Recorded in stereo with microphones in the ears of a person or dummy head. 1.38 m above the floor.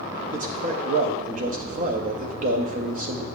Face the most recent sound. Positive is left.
turn(degrees=-45)  # may be behind; listen again after turning